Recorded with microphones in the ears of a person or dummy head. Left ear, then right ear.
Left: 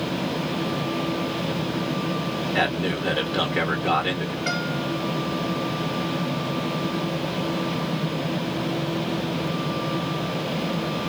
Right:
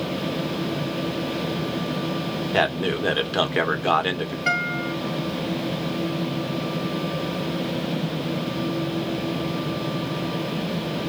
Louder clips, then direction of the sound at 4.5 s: Right 5 dB; 35° right (ahead or behind).